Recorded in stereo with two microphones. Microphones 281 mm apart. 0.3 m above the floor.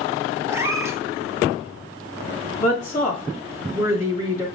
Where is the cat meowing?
10° right (ahead or behind), 0.5 m.